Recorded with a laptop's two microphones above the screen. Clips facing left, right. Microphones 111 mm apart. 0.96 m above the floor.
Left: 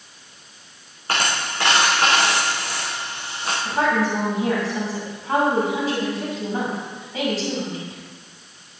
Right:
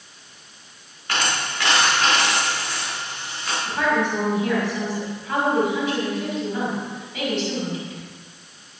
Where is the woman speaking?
35° left (ahead or behind), 5 m.